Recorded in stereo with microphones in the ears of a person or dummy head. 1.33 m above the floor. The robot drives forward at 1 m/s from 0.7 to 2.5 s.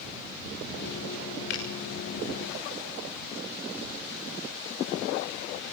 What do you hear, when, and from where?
1.5 s a finger snap: 60° left (ahead or behind), 6 m